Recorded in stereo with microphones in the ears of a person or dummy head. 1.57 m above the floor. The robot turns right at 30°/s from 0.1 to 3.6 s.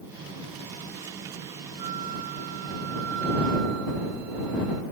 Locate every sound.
1.8 s a flute: 145° right; by 4.8 s 95° right